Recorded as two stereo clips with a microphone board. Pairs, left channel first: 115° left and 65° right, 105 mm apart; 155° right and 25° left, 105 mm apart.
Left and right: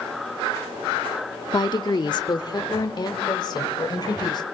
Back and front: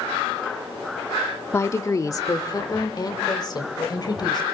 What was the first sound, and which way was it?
A woman speaking, 145° left.